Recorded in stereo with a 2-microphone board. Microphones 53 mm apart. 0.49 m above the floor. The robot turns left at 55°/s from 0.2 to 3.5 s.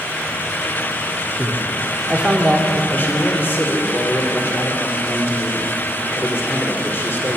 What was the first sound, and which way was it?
A man speaking, 30° right (ahead or behind).